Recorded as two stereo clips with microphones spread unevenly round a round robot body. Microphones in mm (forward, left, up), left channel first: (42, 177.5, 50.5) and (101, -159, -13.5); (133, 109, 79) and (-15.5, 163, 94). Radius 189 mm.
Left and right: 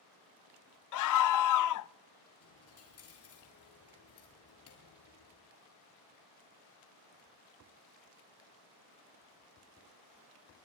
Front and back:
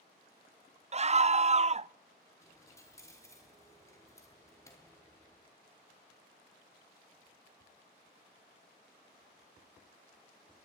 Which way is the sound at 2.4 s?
50° left.